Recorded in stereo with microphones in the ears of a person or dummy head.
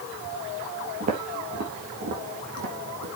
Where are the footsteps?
45° right (ahead or behind), 3.5 m; by 3.1 s 60° right (ahead or behind), 5 m.